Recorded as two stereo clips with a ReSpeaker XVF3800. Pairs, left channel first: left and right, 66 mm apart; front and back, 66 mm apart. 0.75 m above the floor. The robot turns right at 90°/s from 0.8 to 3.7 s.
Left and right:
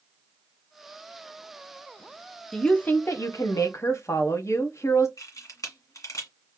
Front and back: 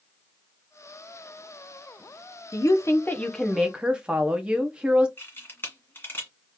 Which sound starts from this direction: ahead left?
A camera shutter, at 5.2 s.